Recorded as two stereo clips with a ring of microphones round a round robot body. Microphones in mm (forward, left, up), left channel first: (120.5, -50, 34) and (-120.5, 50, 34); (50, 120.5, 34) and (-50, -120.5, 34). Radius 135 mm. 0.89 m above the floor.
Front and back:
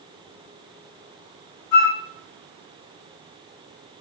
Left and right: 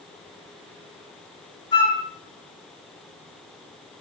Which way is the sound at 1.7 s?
5° right.